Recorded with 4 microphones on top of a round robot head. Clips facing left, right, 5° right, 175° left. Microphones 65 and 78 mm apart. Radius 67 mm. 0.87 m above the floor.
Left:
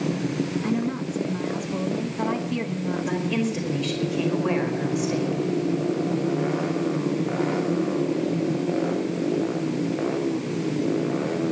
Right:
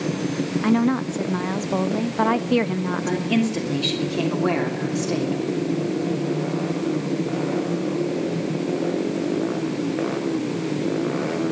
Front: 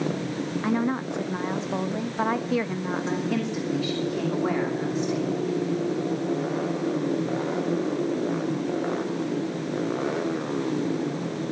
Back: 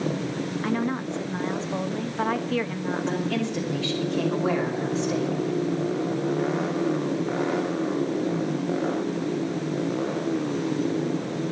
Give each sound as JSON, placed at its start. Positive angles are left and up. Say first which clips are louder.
{"t": 0.6, "sound": "a woman speaking", "louder": "right 6 dB, front 2 dB", "azimuth_deg": -85, "distance_m": 0.8}
{"t": 3.0, "sound": "a woman speaking", "louder": "right 3 dB, back 1 dB", "azimuth_deg": -90, "distance_m": 2.5}